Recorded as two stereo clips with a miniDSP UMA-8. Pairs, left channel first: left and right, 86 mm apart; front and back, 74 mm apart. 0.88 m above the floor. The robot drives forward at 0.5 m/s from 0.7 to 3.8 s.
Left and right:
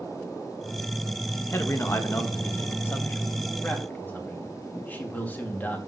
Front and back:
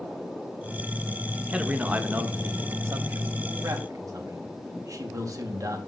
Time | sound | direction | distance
1.5 | a man speaking | 115° left | 1.1 m